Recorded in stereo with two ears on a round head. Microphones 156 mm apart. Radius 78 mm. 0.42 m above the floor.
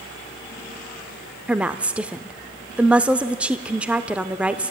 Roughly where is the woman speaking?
Centre.